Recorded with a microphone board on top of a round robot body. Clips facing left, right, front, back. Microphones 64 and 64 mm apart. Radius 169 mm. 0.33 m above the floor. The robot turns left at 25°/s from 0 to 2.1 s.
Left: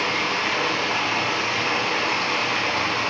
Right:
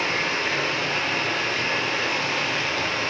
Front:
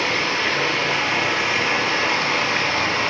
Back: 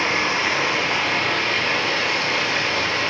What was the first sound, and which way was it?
Running water, 115° left.